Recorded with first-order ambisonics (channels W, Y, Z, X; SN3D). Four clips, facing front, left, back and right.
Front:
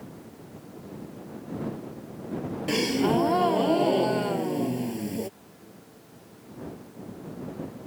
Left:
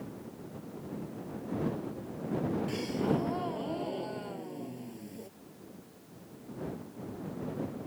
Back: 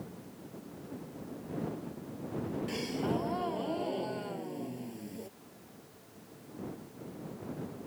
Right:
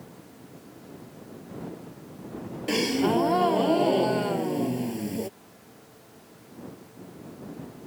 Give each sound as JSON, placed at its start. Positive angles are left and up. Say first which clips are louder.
{"t": 2.7, "sound": "a gasp", "louder": "right 13 dB, front 12 dB", "azimuth_deg": -50}